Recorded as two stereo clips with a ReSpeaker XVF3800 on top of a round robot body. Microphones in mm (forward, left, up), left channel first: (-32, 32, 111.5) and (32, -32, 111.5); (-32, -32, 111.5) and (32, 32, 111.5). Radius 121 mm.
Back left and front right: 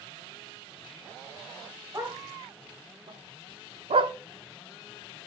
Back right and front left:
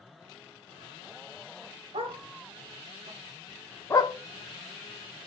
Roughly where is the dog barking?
Ahead.